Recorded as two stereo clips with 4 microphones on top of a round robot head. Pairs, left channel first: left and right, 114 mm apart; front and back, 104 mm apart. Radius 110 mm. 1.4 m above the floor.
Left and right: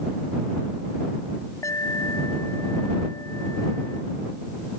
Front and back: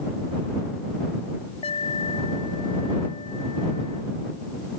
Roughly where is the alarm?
Ahead left.